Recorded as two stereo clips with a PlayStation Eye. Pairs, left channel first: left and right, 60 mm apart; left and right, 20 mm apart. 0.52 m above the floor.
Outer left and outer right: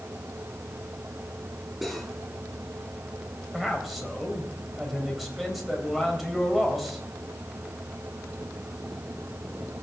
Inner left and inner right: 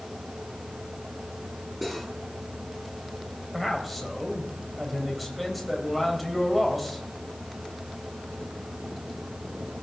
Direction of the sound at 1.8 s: 5° right (ahead or behind).